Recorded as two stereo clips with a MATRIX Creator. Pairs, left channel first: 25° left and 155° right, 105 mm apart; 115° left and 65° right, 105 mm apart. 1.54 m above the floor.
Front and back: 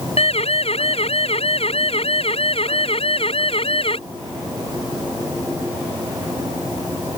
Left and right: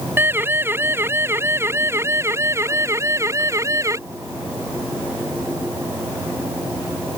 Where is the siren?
5° left; by 4.0 s 5° right.